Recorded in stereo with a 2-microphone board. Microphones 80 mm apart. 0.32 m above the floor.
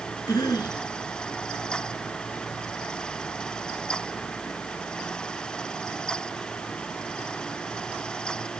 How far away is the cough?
About 2.5 m.